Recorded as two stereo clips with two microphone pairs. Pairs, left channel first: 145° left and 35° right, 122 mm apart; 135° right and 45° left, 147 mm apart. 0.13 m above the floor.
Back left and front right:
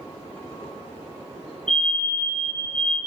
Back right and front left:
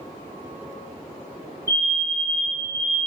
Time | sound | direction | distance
1.7 | a fire alarm | 145° right | 2 m